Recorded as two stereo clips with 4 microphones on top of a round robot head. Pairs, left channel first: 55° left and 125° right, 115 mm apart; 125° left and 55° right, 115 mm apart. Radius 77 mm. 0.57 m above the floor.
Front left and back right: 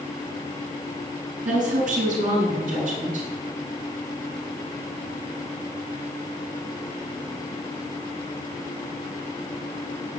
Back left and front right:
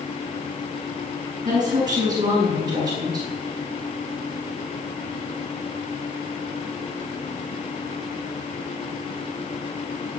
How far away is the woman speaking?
About 8 m.